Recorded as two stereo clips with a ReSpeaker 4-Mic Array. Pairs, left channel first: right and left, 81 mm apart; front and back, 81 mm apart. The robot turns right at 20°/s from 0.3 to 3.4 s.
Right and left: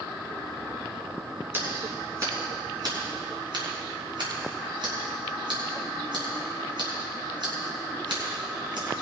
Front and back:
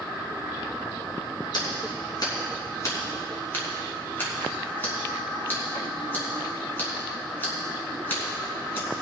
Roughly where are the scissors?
Ahead left.